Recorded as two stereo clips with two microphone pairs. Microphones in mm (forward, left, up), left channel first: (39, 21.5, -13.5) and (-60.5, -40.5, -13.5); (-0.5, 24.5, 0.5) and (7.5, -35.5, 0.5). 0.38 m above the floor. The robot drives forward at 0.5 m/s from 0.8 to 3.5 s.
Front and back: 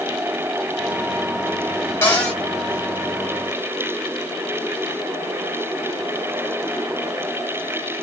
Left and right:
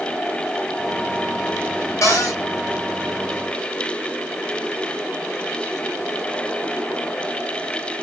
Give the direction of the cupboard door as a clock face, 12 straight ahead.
9 o'clock.